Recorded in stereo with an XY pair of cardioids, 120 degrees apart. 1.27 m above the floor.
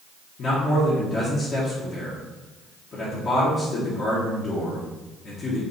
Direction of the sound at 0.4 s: 45° left.